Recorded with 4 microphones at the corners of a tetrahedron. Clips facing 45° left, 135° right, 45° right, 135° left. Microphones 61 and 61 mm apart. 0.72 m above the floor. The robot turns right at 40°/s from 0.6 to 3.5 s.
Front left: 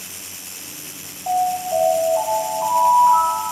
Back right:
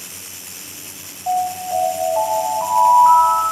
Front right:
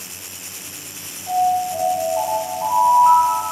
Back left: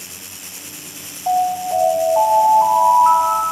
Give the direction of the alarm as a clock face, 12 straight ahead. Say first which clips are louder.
Front left 1 dB, back left 1 dB; 8 o'clock.